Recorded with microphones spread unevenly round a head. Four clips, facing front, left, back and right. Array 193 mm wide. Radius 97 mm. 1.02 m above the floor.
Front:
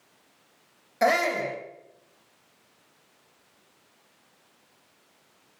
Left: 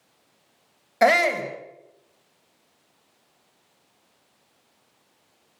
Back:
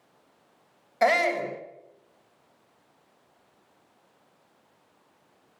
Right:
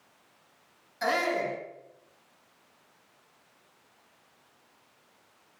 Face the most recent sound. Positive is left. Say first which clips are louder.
# left 9 dB, even
turn(degrees=80)